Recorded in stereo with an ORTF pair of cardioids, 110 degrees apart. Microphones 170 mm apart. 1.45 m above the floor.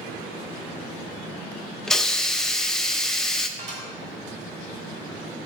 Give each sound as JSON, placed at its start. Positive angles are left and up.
{"t": 1.9, "sound": "a hiss", "azimuth_deg": 0, "distance_m": 0.7}
{"t": 3.6, "sound": "dishes clattering", "azimuth_deg": -45, "distance_m": 1.9}